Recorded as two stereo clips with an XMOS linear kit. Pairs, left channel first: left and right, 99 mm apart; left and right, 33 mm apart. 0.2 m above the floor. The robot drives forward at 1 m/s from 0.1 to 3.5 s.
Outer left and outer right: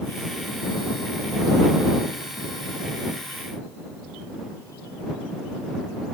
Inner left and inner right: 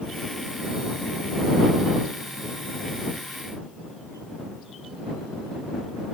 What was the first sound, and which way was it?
Only background noise.